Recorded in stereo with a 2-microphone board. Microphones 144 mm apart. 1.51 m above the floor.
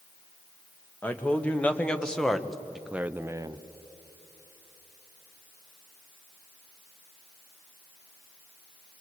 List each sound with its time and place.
1.0 s a man speaking: 15° left (ahead or behind), 1.7 m; by 3.6 s 30° right (ahead or behind), 0.5 m